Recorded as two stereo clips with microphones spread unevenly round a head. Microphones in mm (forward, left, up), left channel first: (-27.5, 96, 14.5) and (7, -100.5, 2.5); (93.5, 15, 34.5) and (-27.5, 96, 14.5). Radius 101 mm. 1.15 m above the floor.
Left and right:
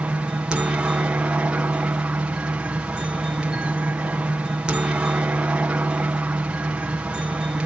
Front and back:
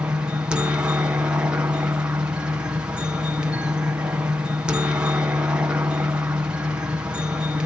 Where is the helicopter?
155° right.